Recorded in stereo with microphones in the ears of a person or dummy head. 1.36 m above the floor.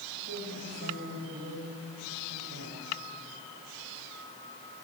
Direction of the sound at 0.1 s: 85° right.